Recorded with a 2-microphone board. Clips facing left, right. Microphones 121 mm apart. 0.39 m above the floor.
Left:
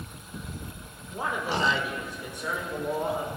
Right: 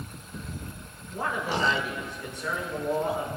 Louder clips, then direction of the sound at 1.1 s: Even; 15° left (ahead or behind).